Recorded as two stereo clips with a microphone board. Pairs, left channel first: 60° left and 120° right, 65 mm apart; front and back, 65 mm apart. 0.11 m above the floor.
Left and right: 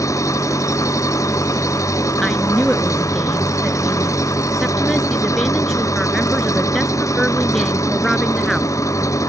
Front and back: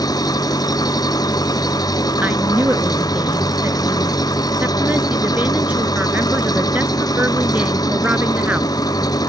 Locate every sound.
0.0 s an engine running: 20° left
2.2 s a woman speaking: 145° left